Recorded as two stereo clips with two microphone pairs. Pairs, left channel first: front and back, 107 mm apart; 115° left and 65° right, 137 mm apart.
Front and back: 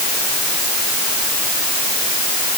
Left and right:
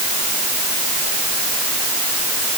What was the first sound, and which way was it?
Only background noise.